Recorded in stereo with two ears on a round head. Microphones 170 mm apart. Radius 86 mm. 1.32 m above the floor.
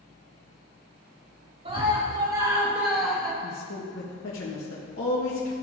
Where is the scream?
30° right (ahead or behind), 2.5 m; by 3.3 s 5° left (ahead or behind), 2.5 m.